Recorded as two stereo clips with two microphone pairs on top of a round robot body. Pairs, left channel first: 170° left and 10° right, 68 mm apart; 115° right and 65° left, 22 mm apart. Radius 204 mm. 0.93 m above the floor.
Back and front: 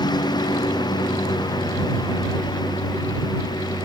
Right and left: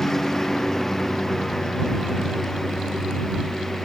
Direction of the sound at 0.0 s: 175° left.